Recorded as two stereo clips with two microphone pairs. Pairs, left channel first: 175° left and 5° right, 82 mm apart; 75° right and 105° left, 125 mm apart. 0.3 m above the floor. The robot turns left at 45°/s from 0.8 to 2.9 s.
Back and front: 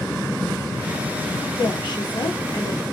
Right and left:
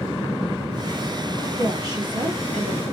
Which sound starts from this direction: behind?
A woman speaking, at 1.6 s.